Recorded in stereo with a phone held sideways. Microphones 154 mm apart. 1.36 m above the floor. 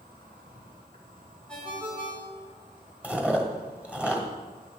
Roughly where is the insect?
Right.